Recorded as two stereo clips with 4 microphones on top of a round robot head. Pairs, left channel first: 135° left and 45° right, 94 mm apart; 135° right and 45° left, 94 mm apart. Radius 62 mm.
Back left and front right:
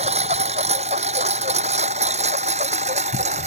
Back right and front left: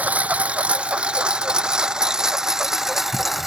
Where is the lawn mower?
30° right; by 3.5 s 40° right.